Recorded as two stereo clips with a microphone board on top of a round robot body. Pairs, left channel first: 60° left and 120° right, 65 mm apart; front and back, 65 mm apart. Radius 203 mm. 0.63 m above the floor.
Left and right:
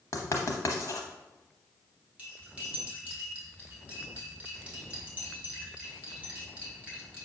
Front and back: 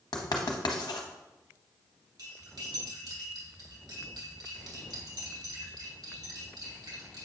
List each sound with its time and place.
0.1 s writing: 15° left, 0.7 m
2.2 s cutlery clinking: 170° left, 2 m